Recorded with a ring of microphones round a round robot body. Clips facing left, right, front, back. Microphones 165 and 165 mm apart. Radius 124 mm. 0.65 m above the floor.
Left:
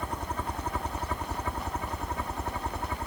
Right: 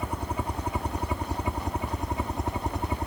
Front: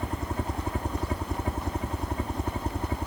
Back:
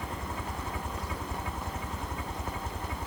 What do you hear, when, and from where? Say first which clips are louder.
0.0 s a helicopter: right 3 dB, front 6 dB; 15° right; by 3.1 s 30° right